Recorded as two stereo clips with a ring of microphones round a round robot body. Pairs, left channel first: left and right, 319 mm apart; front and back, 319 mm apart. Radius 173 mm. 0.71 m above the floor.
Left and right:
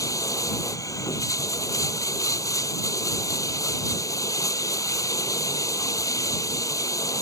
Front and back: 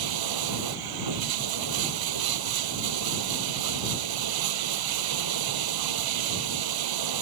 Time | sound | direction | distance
0.0 | running water | 170° left | ?